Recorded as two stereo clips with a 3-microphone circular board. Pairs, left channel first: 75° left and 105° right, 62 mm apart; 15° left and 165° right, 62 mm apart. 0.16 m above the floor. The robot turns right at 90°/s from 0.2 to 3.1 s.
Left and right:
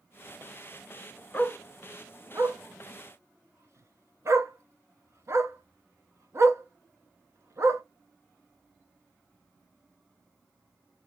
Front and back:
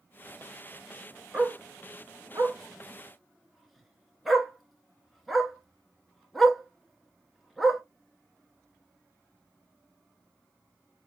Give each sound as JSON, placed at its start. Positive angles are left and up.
{"t": 1.3, "sound": "a dog barking", "azimuth_deg": 125, "distance_m": 0.9}